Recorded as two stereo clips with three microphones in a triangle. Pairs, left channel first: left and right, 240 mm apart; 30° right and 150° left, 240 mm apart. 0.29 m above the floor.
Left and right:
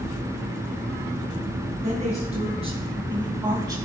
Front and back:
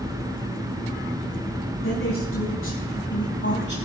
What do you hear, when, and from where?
1.8 s a woman speaking: 35° right, 3 m; by 3.8 s 20° right, 2 m